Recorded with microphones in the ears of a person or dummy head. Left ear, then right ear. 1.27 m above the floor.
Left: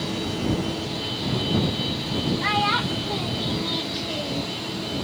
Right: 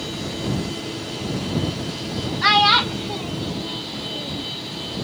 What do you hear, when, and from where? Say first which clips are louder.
2.4 s a child speaking: right 9 dB; 50° right (ahead or behind); by 4.5 s 45° left (ahead or behind)